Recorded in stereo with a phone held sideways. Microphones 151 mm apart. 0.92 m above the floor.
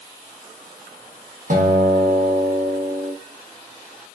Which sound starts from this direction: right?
A guitar, at 1.5 s.